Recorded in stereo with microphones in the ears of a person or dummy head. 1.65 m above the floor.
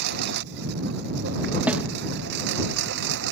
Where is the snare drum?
5° right (ahead or behind).